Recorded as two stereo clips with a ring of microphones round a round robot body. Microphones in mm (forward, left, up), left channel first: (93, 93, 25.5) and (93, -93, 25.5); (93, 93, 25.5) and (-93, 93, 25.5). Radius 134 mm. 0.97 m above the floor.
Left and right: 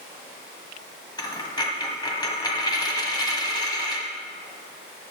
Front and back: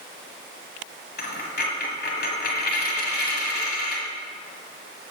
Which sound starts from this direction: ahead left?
A dropped coin, at 1.2 s.